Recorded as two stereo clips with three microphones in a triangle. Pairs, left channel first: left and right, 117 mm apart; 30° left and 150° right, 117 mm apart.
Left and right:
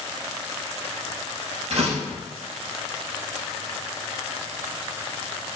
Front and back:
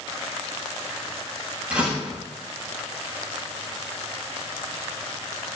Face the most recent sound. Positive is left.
turn(degrees=-70)